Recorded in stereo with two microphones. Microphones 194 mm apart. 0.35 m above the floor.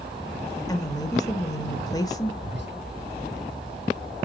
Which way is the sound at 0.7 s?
20° left (ahead or behind).